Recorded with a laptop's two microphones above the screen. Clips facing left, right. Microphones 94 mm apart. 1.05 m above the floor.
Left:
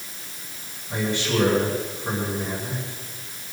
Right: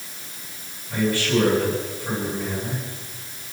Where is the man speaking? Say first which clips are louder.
Right 3 dB; 20° left (ahead or behind), 9 m.